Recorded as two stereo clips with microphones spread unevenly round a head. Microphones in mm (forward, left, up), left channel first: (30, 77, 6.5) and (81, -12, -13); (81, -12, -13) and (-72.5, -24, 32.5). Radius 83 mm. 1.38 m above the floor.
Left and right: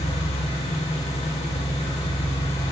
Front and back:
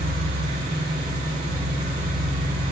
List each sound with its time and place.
0.0 s an engine running: 120° left, 5.5 m